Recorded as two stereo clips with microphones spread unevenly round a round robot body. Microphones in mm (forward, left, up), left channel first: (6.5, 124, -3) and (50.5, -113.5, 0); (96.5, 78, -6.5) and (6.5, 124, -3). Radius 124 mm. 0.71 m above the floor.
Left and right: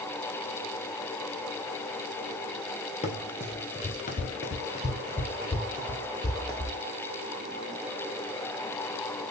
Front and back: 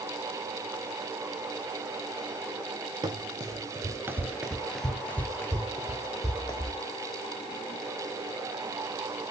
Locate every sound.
3.0 s running footsteps: 160° left, 0.9 m; by 6.8 s 25° left, 1.5 m